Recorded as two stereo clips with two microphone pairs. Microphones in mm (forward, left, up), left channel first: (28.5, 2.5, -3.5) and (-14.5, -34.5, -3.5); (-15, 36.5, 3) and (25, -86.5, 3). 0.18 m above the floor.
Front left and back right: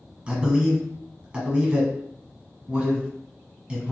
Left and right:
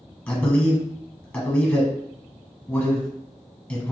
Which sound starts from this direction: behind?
A man speaking, at 0.3 s.